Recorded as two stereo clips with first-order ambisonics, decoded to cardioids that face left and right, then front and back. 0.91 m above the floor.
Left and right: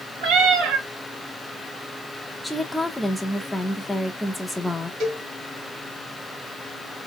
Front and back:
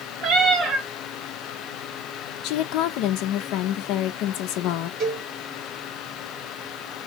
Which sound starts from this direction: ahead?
A woman speaking, at 2.4 s.